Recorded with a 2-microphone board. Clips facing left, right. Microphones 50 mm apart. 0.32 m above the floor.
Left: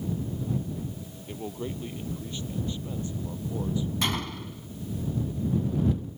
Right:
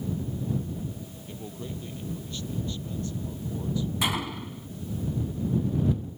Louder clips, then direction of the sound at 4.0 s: Right 1 dB; 10° right (ahead or behind).